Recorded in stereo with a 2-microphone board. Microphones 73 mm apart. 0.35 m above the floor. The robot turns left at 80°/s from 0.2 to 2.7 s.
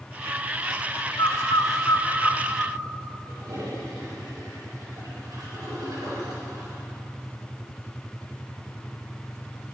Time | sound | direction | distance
1.2 | a bird | 65° left (ahead or behind) | 1.6 m
3.3 | a toilet flushing | 75° right (ahead or behind) | 6 m